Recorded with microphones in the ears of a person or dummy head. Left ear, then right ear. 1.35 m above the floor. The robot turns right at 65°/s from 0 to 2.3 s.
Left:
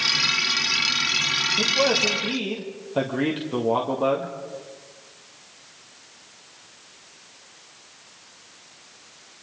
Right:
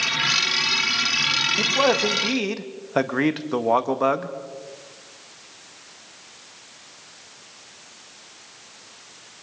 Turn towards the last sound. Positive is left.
turn(degrees=-120)